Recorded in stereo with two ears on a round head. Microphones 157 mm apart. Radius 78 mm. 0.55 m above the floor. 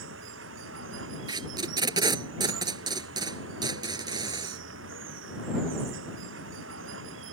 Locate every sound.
0.0 s running water: 85° right
1.3 s tape being pulled: 25° right (ahead or behind)